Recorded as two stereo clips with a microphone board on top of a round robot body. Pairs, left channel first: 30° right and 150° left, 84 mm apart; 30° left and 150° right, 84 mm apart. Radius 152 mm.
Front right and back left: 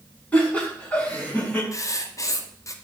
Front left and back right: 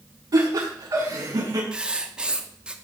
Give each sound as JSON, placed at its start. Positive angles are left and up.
{"t": 0.3, "sound": "laughter", "azimuth_deg": -105, "distance_m": 6.0}
{"t": 1.7, "sound": "writing", "azimuth_deg": -75, "distance_m": 1.1}